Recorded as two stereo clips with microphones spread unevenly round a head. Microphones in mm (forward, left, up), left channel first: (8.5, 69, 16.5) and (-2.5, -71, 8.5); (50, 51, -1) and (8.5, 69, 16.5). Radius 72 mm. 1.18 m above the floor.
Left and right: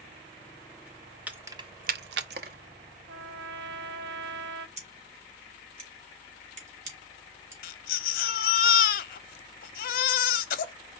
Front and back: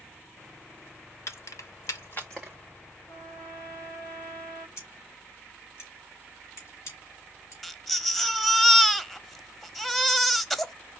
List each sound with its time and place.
1.3 s keys jangling: 15° right, 0.9 m; by 2.6 s 125° right, 0.9 m
3.1 s a trumpet: 110° right, 0.6 m
4.8 s scissors: 55° right, 2.5 m
7.6 s a baby crying: 60° left, 0.7 m